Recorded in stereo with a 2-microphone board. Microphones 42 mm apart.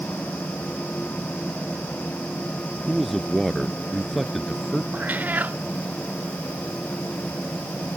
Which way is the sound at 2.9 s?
Centre (ahead or behind).